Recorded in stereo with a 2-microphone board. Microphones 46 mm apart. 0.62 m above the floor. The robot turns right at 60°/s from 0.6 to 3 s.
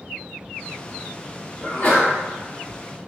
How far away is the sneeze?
About 0.9 m.